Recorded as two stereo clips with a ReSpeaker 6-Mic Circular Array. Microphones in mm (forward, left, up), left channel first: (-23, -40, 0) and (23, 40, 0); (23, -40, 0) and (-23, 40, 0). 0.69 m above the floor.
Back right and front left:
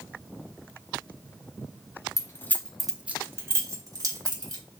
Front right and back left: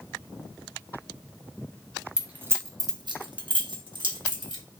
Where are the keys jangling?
160° right, 0.5 m; by 4.6 s 100° left, 1.2 m.